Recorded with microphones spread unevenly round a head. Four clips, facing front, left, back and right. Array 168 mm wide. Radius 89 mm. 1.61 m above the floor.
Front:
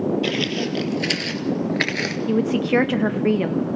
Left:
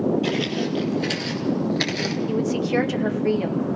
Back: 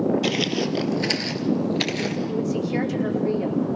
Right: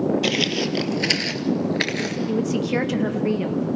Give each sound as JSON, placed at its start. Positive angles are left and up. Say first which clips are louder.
{"t": 0.2, "sound": "footsteps", "louder": "right 1 dB, even", "azimuth_deg": -100, "distance_m": 2.5}
{"t": 2.3, "sound": "a woman speaking", "louder": "even, front 9 dB", "azimuth_deg": -5, "distance_m": 1.9}